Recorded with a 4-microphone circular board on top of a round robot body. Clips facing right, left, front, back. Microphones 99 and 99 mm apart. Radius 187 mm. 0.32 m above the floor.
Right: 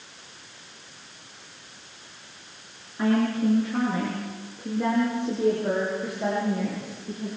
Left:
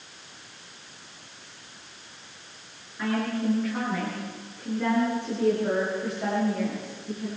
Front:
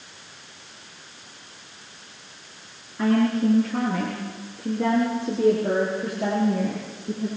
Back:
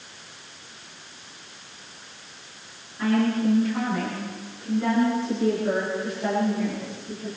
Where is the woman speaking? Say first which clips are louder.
Right 5 dB, front 2 dB; 35° right, 7 m; by 7.3 s 10° right, 10 m.